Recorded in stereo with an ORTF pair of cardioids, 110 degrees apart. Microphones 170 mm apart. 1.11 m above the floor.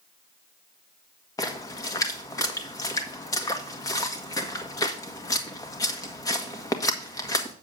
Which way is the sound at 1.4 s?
20° left.